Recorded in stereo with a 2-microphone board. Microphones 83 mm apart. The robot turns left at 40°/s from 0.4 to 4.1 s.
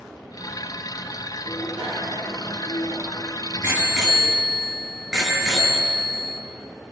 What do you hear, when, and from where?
1.4 s a bicycle bell: 70° right, 7 m; by 6.4 s straight behind, 7 m